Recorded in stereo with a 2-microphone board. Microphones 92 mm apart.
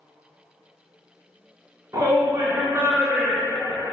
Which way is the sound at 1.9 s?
45° right (ahead or behind).